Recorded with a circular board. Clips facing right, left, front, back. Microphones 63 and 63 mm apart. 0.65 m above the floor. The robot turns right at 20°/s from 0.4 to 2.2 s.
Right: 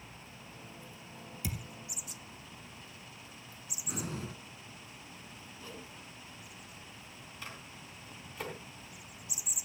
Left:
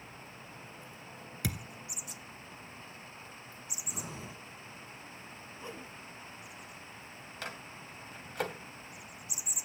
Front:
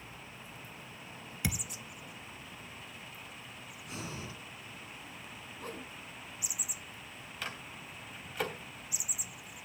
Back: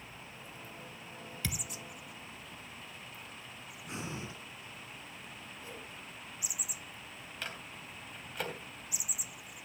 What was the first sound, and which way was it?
A thud, 75° left.